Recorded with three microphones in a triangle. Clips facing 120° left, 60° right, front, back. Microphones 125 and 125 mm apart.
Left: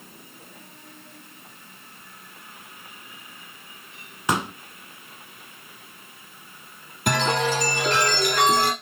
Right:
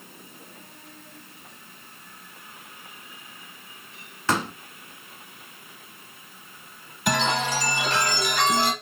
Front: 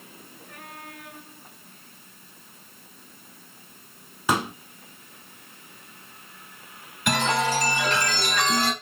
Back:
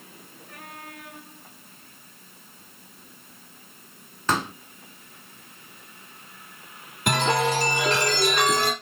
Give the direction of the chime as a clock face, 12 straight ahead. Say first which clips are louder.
Left 2 dB, back 1 dB; 7 o'clock.